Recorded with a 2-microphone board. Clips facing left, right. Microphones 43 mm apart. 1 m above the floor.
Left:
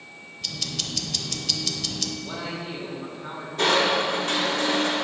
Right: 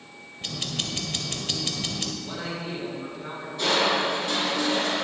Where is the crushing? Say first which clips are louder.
Left 2 dB; 65° left (ahead or behind), 2.5 m.